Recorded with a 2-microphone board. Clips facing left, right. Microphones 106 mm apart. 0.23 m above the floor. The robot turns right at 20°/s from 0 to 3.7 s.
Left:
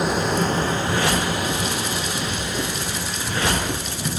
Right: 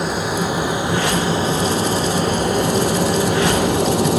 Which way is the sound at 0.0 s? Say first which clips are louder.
Even; straight behind.